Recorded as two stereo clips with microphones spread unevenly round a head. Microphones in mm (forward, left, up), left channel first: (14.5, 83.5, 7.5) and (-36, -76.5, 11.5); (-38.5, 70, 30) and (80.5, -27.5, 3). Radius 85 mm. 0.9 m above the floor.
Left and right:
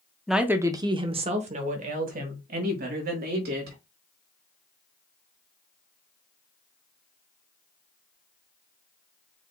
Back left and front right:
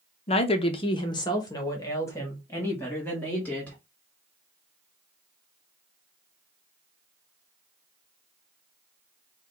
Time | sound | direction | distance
0.3 | a woman speaking | 160° left | 0.7 m